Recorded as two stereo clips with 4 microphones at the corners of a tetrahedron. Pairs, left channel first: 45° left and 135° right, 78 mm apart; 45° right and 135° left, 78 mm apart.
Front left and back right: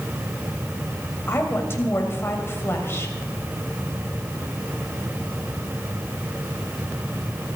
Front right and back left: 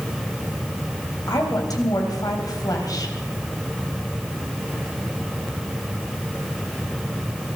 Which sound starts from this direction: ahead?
A woman speaking, at 1.3 s.